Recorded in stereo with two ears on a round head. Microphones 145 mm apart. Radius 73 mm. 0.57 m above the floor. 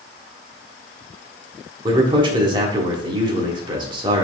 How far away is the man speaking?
About 1.3 m.